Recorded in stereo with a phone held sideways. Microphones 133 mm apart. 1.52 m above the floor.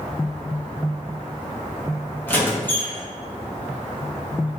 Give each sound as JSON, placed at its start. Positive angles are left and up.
{"t": 2.3, "sound": "a squeak", "side_deg": 15, "distance_m": 0.8}